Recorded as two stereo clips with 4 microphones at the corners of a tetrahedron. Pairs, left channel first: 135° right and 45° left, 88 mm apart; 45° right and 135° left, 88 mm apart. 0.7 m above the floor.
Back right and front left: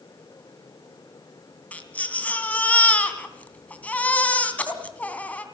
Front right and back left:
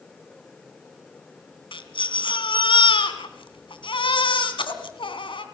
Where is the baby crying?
60° right, 2.5 m.